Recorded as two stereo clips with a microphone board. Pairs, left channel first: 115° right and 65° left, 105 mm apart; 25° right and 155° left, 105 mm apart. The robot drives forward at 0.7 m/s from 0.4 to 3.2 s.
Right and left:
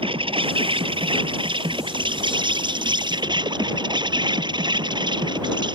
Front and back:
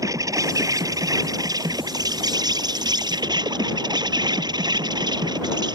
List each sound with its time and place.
0.0 s an insect: 100° left; by 5.8 s 110° left